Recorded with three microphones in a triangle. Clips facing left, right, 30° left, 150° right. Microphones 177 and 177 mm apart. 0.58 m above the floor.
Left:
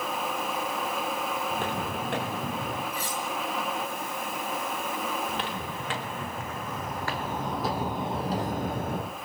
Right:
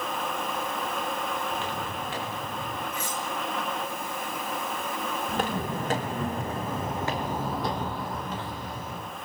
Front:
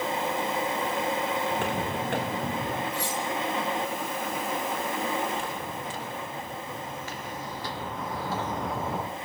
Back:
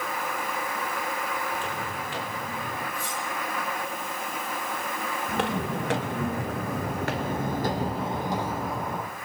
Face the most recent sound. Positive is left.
turn(degrees=105)